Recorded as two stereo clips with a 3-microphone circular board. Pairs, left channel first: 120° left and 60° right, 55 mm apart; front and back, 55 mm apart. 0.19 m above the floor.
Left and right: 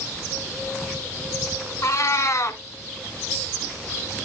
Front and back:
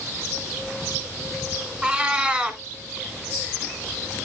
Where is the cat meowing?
105° left, 0.9 m.